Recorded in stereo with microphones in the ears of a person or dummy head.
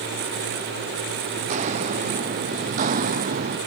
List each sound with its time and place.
1.4 s footsteps: 40° right (ahead or behind); by 3.6 s 45° right (ahead or behind)